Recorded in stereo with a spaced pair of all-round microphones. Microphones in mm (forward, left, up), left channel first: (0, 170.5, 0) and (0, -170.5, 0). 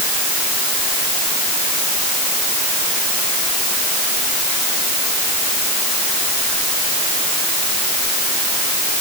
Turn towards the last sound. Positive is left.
No sound to turn to.